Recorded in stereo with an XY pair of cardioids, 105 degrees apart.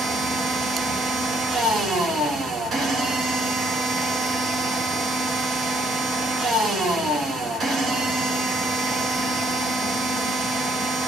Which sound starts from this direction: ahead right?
A machine running, at 0.0 s.